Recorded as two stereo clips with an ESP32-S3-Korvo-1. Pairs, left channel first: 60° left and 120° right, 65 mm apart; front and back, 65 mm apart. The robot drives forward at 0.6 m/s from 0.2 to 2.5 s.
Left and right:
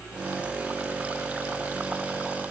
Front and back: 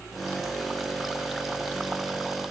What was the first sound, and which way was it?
Only background noise.